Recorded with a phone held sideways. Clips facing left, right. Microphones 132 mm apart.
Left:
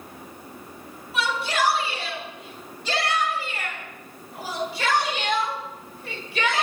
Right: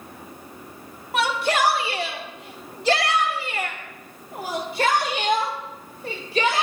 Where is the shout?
70° right (ahead or behind), 3 m; by 6.7 s 40° right (ahead or behind), 4.5 m.